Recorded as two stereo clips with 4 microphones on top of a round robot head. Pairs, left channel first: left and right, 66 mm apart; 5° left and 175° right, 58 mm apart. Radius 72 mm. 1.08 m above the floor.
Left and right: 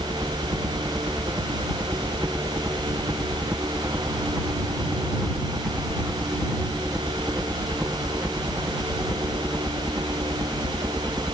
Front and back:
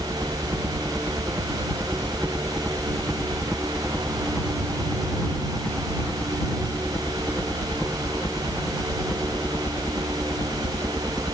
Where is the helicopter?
130° right; by 11.4 s 10° right.